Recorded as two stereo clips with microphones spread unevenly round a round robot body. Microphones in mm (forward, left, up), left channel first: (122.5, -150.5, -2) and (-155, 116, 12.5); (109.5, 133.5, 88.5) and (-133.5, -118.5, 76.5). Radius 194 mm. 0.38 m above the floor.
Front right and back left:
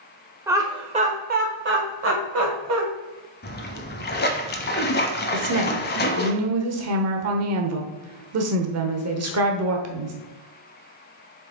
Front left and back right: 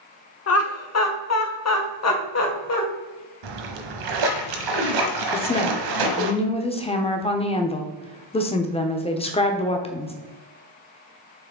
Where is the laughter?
55° left, 1.1 m; by 2.8 s 90° left, 1.9 m.